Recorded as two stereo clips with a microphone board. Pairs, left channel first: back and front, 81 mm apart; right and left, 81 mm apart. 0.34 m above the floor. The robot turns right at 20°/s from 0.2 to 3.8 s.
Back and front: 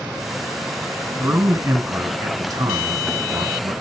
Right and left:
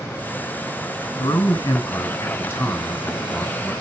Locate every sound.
1.2 s a man speaking: 60° right, 3 m; by 3.7 s 10° right, 3 m